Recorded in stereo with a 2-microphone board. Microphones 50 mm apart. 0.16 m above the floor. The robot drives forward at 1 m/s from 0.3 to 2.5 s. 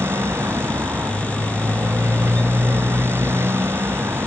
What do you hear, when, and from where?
0.0 s a motorcycle: 55° right (ahead or behind)